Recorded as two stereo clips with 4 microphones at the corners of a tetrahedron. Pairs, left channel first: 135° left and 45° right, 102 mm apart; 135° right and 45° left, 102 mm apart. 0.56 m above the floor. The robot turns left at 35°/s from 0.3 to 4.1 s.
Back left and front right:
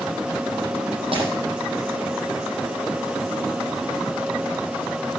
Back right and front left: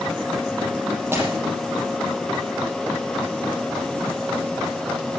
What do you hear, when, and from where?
1.1 s breaking glass: 20° right, 5.5 m; by 1.3 s 30° right, 5.5 m